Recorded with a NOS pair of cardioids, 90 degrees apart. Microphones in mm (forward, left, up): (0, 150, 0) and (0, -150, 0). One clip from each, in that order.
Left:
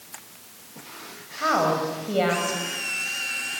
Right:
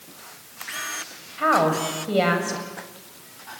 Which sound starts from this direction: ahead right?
A woman speaking, at 1.4 s.